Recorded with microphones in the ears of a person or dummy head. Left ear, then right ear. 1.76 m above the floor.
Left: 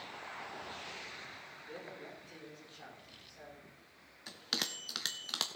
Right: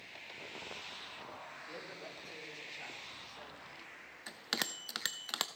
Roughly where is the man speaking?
Right.